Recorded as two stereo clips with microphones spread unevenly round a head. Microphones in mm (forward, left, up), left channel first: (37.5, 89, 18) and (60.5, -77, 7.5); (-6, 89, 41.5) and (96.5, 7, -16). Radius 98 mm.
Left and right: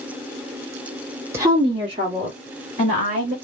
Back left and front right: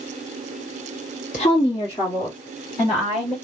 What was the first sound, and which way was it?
A woman speaking, 160° right.